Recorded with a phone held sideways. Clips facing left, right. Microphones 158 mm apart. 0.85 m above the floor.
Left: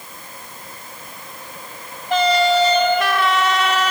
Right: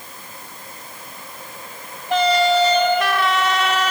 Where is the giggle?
I don't hear a giggle.